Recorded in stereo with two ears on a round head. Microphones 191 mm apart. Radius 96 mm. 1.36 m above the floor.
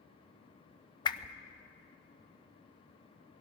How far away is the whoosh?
About 0.7 m.